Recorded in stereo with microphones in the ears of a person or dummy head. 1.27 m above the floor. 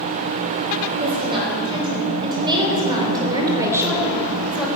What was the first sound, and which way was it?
A woman speaking, 30° right (ahead or behind).